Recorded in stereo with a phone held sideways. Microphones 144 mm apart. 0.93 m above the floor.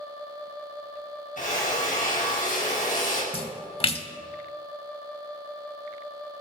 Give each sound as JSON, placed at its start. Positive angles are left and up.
{"t": 1.4, "sound": "a drill", "side_deg": 65, "distance_m": 5.0}
{"t": 3.3, "sound": "a splash", "side_deg": 40, "distance_m": 1.1}